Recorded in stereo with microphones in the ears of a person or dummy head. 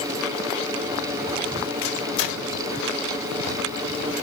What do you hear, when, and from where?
1.8 s a microwave: 80° left, 4 m